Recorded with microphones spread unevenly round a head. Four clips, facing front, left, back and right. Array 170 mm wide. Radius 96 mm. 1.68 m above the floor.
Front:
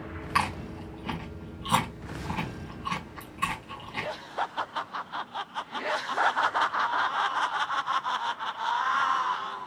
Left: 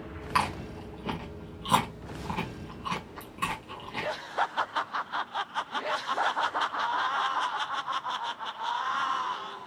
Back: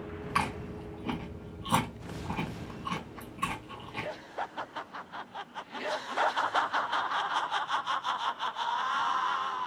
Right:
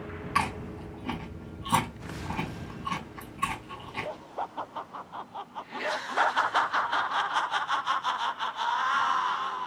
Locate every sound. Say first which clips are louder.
0.3 s chewing: left 1 dB, front 4 dB; 100° left, 1.2 m